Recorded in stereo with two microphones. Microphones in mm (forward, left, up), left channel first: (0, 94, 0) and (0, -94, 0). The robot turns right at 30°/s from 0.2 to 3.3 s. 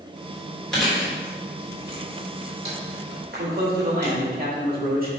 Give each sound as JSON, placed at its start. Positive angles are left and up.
{"t": 0.7, "sound": "chewing", "side_deg": 5, "distance_m": 3.0}
{"t": 3.4, "sound": "a man speaking", "side_deg": -55, "distance_m": 1.9}